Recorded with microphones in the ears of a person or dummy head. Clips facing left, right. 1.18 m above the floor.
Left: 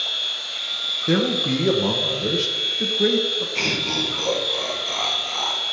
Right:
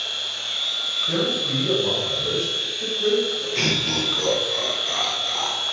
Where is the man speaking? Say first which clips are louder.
Left 4 dB; 65° left (ahead or behind), 1.2 m.